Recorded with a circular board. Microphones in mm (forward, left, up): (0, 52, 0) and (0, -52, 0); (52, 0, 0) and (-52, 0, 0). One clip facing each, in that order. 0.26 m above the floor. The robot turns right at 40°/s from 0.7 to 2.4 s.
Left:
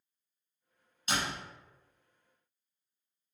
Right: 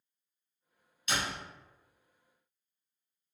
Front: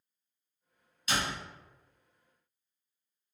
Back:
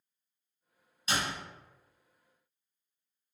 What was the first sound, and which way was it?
A door slam, 130° left.